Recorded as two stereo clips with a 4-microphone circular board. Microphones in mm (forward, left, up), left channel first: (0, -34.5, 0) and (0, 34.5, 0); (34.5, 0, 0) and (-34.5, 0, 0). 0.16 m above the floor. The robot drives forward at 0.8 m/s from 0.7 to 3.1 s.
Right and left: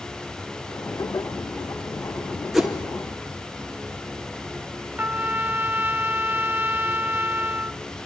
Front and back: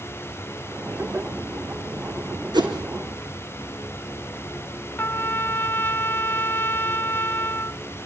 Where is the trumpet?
45° left, 0.6 m.